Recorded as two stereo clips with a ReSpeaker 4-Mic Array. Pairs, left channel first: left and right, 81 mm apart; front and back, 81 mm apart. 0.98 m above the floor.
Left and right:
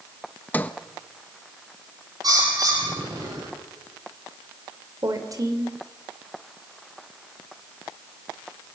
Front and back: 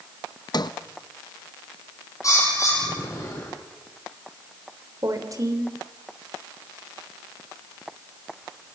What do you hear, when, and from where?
0.5 s a sliding door: 20° left, 0.9 m
2.2 s a bird: 50° right, 8 m
5.0 s a woman speaking: 135° right, 3 m